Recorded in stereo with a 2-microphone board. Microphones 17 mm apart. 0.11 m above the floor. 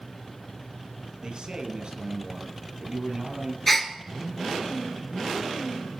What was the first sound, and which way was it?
A man speaking, 60° right (ahead or behind).